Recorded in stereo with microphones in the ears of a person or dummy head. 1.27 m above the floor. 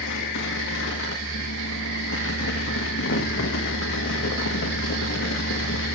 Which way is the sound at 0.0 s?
70° left (ahead or behind).